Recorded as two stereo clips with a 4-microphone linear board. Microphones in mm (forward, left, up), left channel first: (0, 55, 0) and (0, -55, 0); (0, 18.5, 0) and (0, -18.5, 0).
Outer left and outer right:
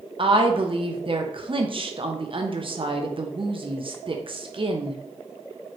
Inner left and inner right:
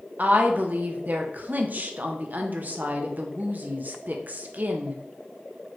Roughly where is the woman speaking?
Right.